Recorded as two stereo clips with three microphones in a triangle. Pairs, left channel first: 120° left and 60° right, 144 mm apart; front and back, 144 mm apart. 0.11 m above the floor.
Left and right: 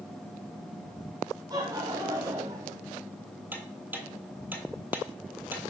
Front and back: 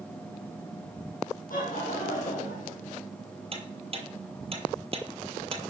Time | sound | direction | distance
1.5 | laughter | straight ahead | 4 m
3.5 | ticking | 135° right | 1.4 m